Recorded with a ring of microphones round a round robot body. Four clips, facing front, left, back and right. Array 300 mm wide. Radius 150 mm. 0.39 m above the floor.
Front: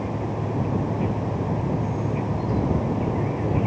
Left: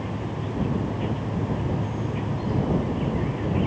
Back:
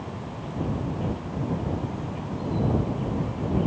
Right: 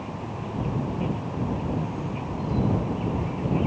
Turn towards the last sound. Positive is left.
turn(degrees=15)